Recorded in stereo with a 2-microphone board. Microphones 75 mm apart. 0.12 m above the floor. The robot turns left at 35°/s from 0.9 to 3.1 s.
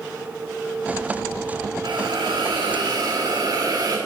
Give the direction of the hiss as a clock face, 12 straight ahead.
3 o'clock.